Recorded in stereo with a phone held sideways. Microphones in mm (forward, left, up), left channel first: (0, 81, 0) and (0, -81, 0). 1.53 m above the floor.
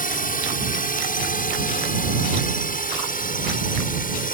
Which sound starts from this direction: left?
A drone, at 0.0 s.